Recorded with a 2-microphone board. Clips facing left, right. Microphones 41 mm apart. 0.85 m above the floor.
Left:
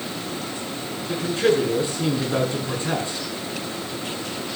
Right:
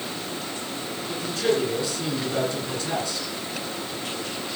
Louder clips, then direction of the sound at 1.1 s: Left 4 dB; 30° left (ahead or behind).